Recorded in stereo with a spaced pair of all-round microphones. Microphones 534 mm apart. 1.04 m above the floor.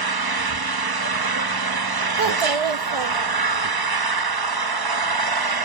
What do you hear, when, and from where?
0.0 s an engine running: 45° right (ahead or behind), 0.7 m
2.2 s a child speaking: 65° right (ahead or behind), 0.6 m